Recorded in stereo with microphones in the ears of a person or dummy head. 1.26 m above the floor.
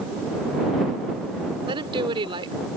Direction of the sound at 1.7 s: 25° right (ahead or behind).